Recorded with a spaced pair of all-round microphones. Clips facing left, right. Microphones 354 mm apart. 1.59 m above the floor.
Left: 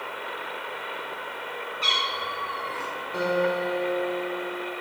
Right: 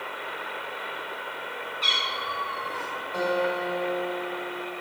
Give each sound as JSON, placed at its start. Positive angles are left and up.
{"t": 1.8, "sound": "a cat meowing", "side_deg": 60, "distance_m": 2.5}
{"t": 3.1, "sound": "a guitar", "side_deg": 45, "distance_m": 2.5}